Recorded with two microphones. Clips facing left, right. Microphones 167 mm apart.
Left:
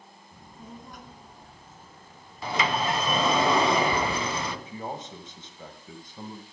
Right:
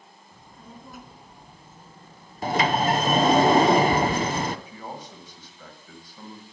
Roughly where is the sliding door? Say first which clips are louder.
Right 5 dB; right.